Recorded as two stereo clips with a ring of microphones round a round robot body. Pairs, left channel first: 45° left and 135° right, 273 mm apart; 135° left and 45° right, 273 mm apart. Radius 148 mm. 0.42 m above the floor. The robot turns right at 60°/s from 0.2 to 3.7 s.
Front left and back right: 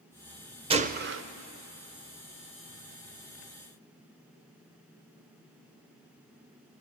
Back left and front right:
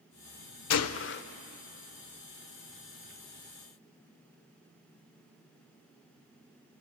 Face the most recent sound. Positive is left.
turn(degrees=-25)